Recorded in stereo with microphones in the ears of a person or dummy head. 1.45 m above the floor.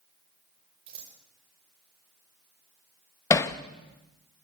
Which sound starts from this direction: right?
Scissors, at 0.9 s.